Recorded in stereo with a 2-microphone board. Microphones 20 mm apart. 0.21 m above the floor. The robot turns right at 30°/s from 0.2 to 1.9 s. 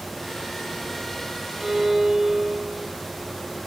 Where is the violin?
50° right (ahead or behind), 3.5 m; by 2.9 s 40° right (ahead or behind), 3.5 m.